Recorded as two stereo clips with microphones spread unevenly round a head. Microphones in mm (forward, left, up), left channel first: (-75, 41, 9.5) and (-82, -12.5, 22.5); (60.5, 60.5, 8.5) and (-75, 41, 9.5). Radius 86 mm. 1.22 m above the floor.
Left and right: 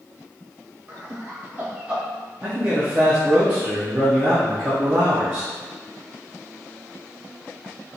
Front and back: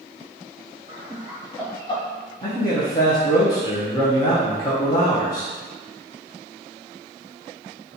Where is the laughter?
135° right, 0.8 m; by 2.0 s 15° right, 0.7 m.